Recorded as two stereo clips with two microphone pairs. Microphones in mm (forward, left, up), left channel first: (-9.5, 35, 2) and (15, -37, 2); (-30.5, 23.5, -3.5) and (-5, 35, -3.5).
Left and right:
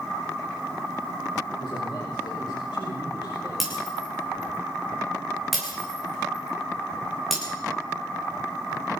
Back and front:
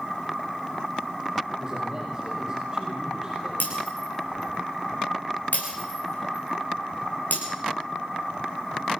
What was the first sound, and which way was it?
A man speaking, 90° left.